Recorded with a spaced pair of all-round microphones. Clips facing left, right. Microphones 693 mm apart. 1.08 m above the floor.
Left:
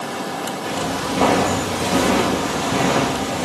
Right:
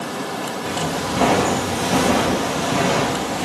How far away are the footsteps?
About 1.6 m.